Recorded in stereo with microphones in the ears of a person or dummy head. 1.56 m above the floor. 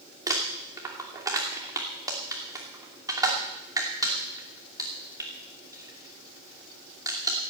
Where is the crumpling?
15° right (ahead or behind), 2.5 m.